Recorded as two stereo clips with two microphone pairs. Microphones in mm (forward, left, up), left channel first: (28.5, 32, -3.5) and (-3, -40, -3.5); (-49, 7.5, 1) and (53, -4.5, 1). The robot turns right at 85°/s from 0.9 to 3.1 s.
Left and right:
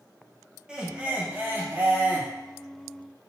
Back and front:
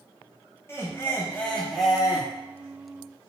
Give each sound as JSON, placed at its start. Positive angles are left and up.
{"t": 0.7, "sound": "laughter", "azimuth_deg": -175, "distance_m": 0.6}